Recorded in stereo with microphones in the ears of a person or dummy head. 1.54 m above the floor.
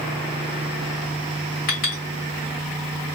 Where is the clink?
65° left (ahead or behind), 2.5 m.